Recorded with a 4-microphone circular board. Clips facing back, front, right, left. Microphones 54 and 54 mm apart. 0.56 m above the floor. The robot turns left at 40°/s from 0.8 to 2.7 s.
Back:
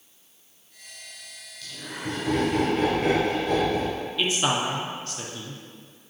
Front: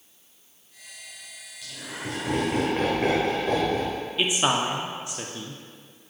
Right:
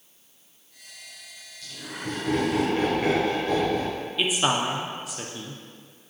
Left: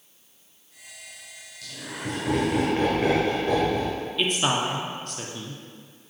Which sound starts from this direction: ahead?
A man speaking, at 4.2 s.